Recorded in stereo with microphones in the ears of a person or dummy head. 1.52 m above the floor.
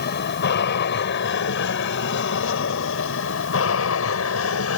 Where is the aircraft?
50° left (ahead or behind); by 4.8 s 70° left (ahead or behind).